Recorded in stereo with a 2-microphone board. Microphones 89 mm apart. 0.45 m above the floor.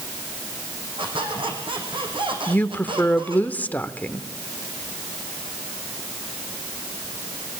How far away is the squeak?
About 4.5 m.